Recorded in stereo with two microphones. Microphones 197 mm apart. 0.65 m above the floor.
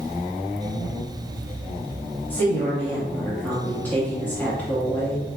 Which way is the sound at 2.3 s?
10° left (ahead or behind).